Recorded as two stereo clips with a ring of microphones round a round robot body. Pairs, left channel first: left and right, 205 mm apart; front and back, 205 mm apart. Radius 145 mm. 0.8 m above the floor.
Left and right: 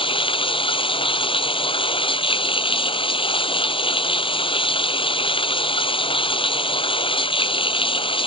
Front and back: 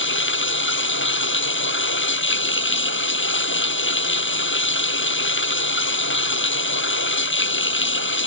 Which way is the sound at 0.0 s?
25° left.